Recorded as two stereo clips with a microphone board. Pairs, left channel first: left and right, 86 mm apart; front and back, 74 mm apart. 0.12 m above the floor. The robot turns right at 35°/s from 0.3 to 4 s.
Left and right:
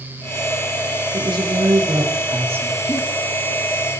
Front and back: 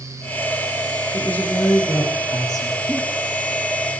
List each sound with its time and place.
1.1 s a woman speaking: 75° right, 7 m; by 3.0 s 10° right, 7 m
2.9 s a giggle: 75° left, 1.9 m; by 3.0 s 80° left, 1.9 m